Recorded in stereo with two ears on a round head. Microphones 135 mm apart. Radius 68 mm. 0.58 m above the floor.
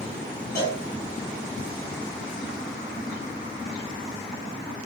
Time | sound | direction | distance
0.6 | a cowbell | 25° left (ahead or behind) | 2.5 m